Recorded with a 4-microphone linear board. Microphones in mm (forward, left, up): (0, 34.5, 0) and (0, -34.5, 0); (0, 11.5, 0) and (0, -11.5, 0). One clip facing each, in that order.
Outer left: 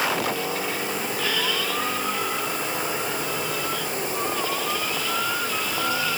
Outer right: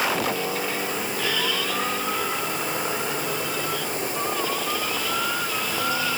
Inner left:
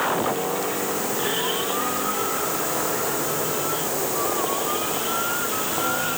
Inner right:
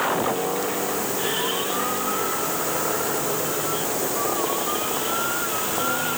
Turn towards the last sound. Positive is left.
No sound to turn to.